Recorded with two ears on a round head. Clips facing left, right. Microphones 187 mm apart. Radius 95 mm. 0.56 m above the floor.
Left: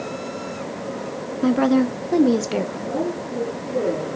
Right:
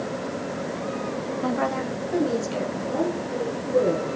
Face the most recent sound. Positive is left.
turn(degrees=25)  # may be behind; listen again after turning